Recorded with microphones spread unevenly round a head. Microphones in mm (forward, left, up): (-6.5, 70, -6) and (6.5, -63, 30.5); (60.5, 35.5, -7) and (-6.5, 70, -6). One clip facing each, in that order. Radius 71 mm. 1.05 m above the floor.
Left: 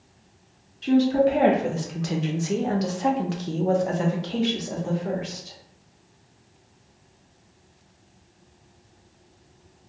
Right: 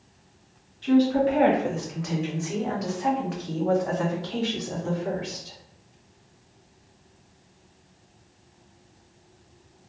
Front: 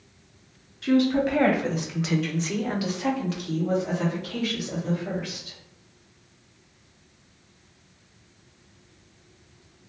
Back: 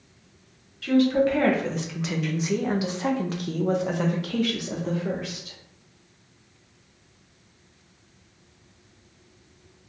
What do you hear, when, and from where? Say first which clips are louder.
0.8 s a woman speaking: left 1 dB, back 1 dB; 40° left, 1.4 m; by 5.6 s 170° left, 1.5 m